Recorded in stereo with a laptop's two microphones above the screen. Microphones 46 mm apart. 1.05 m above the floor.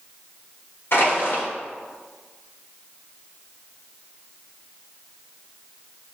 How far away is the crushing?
About 1.2 m.